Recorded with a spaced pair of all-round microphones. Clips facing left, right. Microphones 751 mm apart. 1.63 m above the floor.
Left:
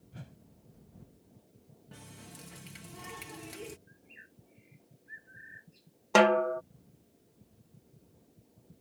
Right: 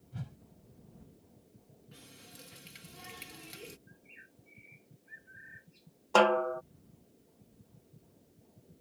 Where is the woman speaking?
No woman speaking in this recording.